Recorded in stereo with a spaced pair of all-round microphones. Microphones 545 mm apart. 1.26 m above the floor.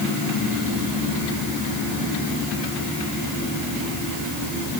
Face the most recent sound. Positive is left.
No sound to turn to.